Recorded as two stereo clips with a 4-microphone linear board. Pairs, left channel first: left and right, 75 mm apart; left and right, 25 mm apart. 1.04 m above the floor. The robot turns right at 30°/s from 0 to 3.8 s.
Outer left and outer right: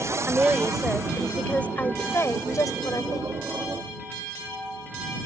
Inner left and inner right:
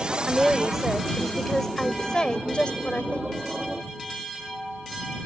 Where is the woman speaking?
25° right; by 3.3 s 70° left.